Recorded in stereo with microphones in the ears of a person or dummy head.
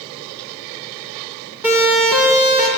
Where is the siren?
15° right (ahead or behind), 8 m; by 2.7 s 10° right (ahead or behind), 7.5 m.